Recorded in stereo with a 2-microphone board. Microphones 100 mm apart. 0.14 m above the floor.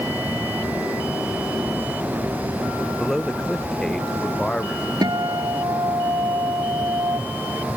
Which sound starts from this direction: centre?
A man speaking, at 3.0 s.